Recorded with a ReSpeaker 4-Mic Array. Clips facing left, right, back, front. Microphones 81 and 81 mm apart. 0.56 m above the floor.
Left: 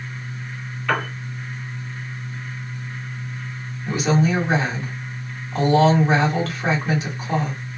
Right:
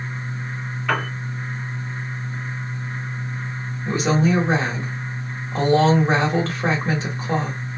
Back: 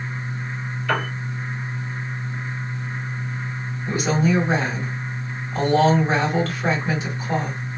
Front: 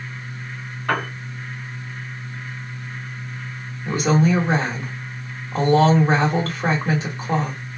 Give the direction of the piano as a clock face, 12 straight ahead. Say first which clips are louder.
Even, front 1 dB; 1 o'clock.